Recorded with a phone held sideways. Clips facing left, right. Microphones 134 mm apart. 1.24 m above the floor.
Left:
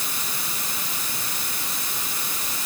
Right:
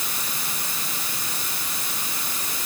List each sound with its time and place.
Only background noise.